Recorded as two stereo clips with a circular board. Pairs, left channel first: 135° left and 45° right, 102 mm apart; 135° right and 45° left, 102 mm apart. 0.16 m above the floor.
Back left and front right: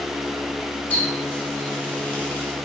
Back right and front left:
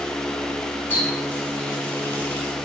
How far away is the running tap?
About 1.1 m.